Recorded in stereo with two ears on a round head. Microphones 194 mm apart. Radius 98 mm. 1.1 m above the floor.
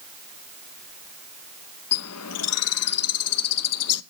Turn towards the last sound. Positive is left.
turn(degrees=80)